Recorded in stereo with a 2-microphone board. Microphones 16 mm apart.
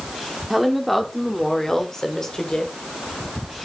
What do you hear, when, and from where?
0.5 s a woman speaking: 10° right (ahead or behind), 1.2 m; by 2.7 s 45° left (ahead or behind), 2 m